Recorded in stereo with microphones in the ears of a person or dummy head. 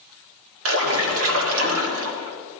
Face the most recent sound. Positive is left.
turn(degrees=-80)